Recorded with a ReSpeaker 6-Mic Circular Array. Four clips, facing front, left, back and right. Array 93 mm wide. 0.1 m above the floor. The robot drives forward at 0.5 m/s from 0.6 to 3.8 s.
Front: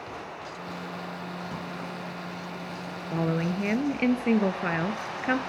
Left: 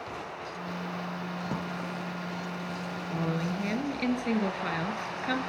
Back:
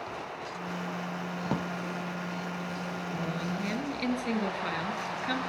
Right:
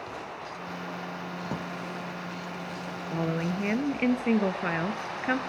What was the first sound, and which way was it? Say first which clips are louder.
A drawer: even, back 4 dB; 175° right.